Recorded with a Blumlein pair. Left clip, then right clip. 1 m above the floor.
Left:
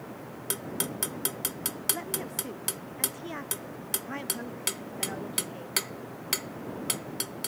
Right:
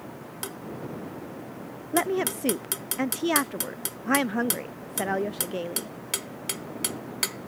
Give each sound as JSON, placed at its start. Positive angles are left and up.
{"t": 1.9, "sound": "a woman speaking", "azimuth_deg": -55}